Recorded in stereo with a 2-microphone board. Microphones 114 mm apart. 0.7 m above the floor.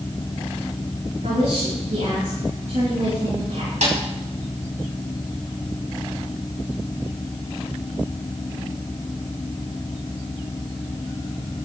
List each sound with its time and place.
1.2 s a woman speaking: 80° right, 8 m
3.8 s a snare drum: 80° right, 3.5 m